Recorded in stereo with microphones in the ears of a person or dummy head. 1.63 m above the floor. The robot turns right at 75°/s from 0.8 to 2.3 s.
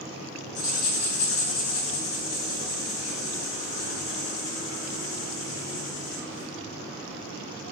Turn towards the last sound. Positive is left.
turn(degrees=160)